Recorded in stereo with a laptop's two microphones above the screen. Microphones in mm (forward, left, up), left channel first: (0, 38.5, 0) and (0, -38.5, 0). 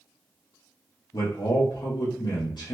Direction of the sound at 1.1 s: 75° left (ahead or behind).